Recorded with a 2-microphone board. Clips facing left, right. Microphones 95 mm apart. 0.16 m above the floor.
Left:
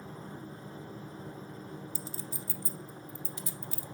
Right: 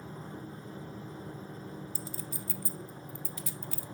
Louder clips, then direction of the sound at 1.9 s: Right 1 dB; 25° left (ahead or behind).